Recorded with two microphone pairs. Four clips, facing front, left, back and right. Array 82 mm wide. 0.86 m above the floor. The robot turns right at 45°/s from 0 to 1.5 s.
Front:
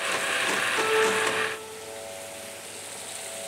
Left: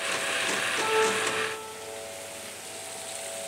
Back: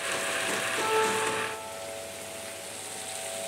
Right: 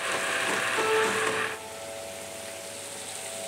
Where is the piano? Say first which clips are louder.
Even, front 2 dB; 45° right, 1.8 m; by 1.5 s 15° right, 1.8 m.